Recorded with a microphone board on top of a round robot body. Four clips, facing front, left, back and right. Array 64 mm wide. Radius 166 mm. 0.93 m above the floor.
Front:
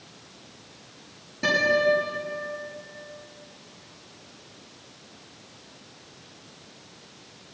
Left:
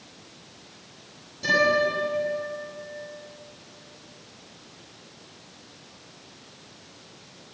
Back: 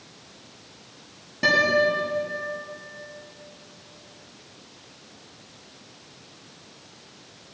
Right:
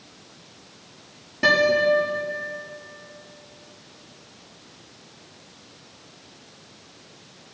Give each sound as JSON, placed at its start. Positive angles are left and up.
{"t": 1.4, "sound": "a guitar", "azimuth_deg": -115, "distance_m": 9.5}